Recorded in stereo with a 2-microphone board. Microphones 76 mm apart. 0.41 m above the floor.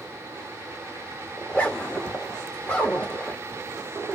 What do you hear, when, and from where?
1.4 s a zipper: 20° left (ahead or behind), 1.4 m